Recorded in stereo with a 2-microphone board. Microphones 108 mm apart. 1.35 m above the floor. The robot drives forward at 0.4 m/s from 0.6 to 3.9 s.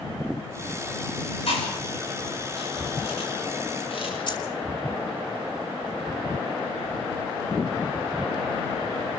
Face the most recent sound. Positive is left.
turn(degrees=45)  # may be behind; listen again after turning